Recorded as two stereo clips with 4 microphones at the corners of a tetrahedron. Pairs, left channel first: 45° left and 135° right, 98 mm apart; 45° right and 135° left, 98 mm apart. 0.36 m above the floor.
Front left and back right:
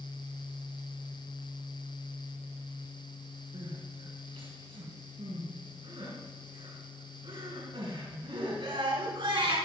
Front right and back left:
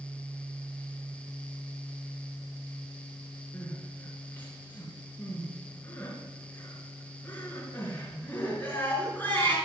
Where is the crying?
115° right, 5 m.